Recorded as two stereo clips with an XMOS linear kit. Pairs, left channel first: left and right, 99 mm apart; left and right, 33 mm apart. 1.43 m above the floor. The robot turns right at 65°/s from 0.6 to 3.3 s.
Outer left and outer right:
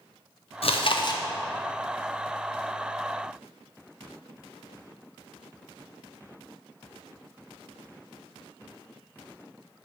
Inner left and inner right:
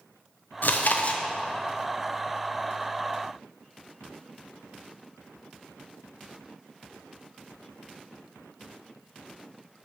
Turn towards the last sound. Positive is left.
turn(degrees=-85)